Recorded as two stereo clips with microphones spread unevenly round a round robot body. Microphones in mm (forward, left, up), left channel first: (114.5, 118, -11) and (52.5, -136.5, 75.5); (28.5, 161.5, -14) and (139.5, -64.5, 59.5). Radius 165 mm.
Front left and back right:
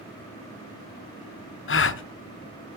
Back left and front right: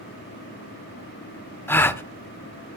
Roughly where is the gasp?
Ahead left.